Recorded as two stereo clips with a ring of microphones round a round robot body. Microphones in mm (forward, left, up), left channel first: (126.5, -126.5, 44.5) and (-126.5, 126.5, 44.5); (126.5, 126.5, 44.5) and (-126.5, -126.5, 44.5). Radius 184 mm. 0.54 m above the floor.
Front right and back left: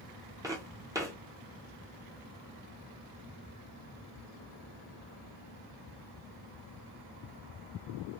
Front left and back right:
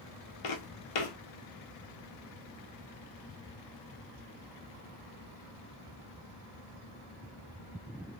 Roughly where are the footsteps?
Ahead left.